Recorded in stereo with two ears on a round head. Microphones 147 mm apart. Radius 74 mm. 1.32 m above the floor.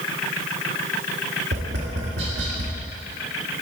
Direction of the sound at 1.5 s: 75° right (ahead or behind).